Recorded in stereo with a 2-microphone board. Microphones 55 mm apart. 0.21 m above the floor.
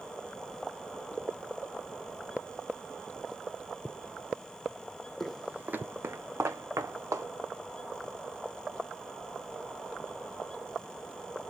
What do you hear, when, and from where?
5.2 s footsteps: 5° left (ahead or behind), 0.5 m; by 7.3 s 75° right (ahead or behind), 1.6 m